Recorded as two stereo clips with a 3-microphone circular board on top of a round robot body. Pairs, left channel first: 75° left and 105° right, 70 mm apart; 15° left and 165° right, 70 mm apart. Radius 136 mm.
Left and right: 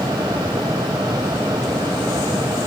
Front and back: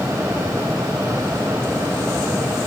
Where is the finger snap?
No finger snap in this recording.